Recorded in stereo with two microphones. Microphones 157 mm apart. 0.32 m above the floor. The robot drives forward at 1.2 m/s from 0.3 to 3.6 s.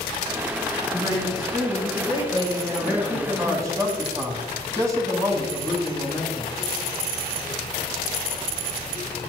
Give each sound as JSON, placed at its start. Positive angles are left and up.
{"t": 0.9, "sound": "a woman speaking", "side_deg": -15, "distance_m": 5.0}
{"t": 2.8, "sound": "a man speaking", "side_deg": -15, "distance_m": 3.0}